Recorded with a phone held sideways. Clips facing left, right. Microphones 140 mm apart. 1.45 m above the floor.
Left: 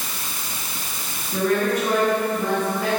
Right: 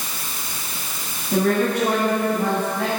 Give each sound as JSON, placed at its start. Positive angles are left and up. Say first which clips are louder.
{"t": 1.3, "sound": "a woman speaking", "louder": "right 2 dB", "side_deg": -70, "distance_m": 10.0}